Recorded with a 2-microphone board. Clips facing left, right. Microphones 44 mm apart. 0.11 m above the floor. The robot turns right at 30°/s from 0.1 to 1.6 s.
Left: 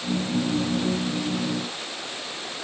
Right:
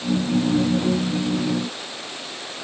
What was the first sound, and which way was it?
Only background noise.